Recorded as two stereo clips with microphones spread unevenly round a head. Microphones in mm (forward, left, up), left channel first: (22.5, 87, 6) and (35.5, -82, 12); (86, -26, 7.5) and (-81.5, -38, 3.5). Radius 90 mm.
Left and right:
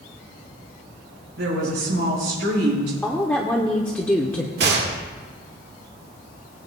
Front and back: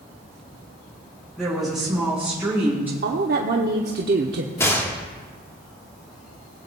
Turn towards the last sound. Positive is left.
turn(degrees=-70)